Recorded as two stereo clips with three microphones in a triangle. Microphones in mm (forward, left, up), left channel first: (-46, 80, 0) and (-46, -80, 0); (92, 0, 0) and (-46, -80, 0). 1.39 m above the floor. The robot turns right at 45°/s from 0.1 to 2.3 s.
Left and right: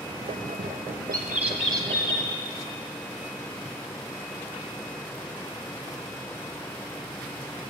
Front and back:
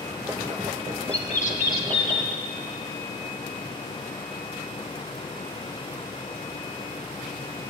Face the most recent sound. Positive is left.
turn(degrees=25)